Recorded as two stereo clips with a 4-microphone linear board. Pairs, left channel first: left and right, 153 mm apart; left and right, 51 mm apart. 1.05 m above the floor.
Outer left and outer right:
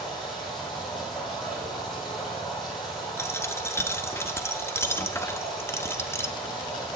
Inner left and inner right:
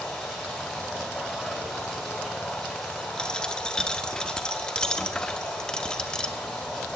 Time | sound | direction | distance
0.0 | running water | centre (ahead or behind) | 5.5 m
3.2 | a dropped coin | 15° left (ahead or behind) | 0.7 m